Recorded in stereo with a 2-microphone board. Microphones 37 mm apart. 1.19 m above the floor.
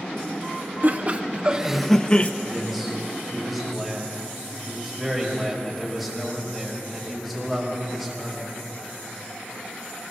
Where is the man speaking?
Centre (ahead or behind), 5 m.